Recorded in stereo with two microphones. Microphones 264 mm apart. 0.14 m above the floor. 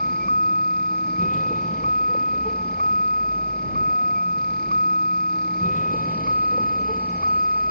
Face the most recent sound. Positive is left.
turn(degrees=30)  # may be behind; listen again after turning